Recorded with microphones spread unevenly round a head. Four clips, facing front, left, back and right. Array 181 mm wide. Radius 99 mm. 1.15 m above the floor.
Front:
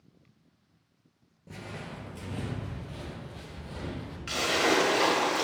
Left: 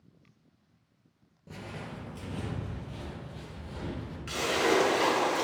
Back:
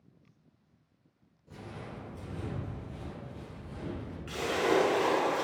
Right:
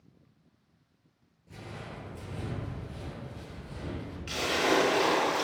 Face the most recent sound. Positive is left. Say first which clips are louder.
# left 1 dB, front 2 dB
turn(degrees=0)